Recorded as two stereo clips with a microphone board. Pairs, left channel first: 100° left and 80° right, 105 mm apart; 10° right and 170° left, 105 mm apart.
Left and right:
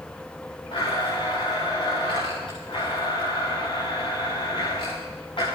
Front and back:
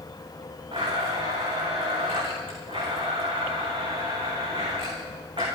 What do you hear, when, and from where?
0.7 s a blender: 140° left, 6.5 m